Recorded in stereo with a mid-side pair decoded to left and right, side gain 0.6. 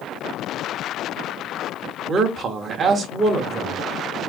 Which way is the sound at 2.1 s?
35° right.